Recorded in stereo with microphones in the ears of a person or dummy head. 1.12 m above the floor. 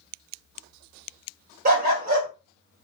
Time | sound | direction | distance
1.6 | a dog barking | 40° right (ahead or behind) | 1.4 m